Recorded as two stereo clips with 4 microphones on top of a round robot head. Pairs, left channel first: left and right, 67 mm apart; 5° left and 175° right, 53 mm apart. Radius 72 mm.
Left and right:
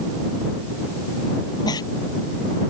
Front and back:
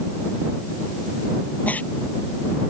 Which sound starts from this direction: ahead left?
A giggle, at 1.7 s.